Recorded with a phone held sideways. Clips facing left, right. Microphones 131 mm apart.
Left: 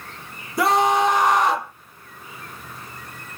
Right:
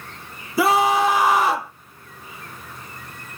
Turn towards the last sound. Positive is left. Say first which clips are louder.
# right 1 dB
turn(degrees=-5)  # may be behind; listen again after turning